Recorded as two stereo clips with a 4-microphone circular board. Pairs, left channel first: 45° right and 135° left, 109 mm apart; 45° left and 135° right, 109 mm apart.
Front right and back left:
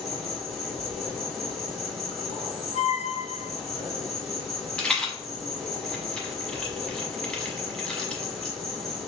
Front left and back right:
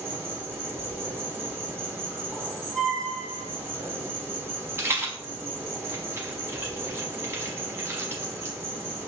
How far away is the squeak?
About 0.7 m.